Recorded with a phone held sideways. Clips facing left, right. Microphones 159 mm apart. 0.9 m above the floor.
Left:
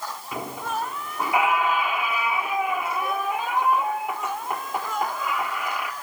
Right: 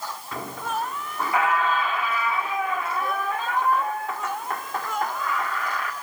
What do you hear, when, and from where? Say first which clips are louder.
0.3 s a squeak: even; 15° left (ahead or behind), 1.3 m